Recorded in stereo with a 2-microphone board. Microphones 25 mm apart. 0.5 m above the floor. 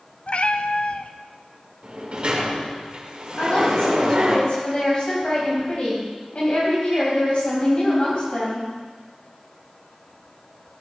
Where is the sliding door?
45° right (ahead or behind), 1.9 m.